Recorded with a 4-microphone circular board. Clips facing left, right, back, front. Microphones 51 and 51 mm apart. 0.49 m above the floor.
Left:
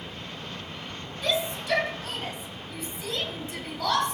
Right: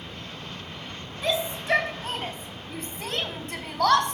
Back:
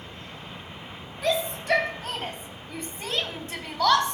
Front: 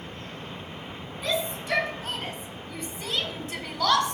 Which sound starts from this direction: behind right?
A shout, at 1.2 s.